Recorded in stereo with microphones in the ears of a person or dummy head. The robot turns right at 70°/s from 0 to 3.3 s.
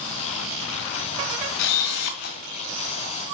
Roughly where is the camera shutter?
Left.